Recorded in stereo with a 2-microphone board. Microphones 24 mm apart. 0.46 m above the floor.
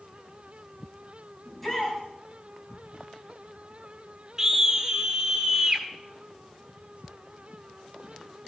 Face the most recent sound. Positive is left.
turn(degrees=-20)  # may be behind; listen again after turning